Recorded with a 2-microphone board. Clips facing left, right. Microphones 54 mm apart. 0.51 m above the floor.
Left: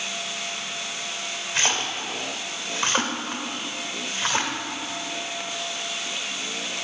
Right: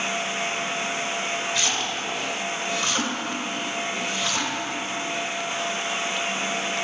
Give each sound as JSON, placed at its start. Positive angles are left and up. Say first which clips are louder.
{"t": 1.6, "sound": "a splash", "louder": "even", "side_deg": 40, "distance_m": 1.1}